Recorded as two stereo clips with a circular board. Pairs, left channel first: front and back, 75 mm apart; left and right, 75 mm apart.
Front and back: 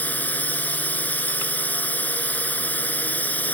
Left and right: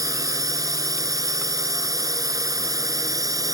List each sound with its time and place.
0.0 s a drone: 65° right